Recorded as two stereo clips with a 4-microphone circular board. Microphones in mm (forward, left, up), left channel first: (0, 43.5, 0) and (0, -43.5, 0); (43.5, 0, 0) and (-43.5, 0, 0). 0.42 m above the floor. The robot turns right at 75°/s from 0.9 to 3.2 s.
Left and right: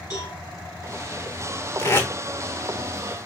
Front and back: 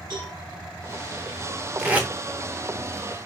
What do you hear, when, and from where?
0.1 s a cowbell: 140° left, 3.5 m
1.8 s tape being pulled: 105° left, 1.0 m; by 2.1 s 130° left, 1.0 m